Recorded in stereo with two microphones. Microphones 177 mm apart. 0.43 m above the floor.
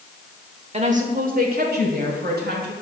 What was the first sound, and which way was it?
A woman speaking, 35° right (ahead or behind).